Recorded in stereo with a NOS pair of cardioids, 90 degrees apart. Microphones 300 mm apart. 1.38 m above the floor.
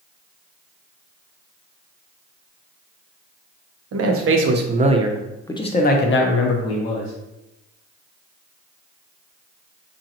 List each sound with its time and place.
3.9 s a man speaking: 55° right, 0.9 m; by 7.1 s 65° left, 1.1 m